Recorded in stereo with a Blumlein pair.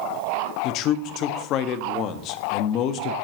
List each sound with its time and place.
0.6 s a man speaking: 35° left, 0.5 m